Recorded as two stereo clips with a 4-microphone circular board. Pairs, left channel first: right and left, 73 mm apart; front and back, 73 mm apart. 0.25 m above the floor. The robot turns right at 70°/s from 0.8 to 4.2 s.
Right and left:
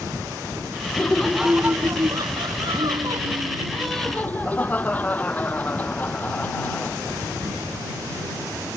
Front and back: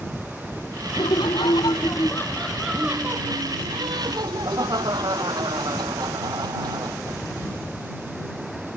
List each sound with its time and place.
0.9 s laughter: 25° right; by 7.2 s 160° right